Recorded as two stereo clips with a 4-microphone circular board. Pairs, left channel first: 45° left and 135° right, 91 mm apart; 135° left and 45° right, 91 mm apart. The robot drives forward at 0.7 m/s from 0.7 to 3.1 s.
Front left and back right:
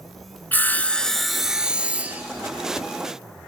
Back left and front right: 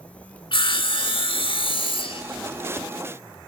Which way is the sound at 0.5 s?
115° left.